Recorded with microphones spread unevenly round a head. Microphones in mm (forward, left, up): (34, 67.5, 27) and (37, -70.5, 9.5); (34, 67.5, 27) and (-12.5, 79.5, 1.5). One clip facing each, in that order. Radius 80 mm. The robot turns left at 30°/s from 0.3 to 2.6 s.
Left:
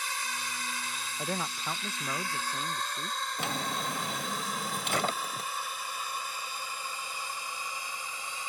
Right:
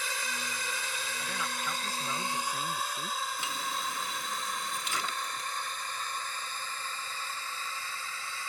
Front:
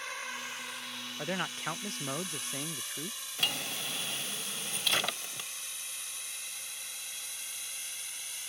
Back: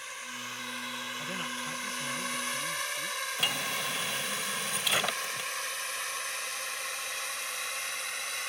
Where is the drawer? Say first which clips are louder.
Left 3 dB, back 1 dB; 65° left.